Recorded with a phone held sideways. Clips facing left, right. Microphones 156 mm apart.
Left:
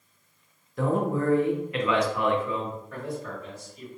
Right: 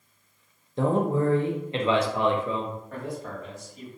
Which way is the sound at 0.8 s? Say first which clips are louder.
Right 2 dB; 30° right (ahead or behind).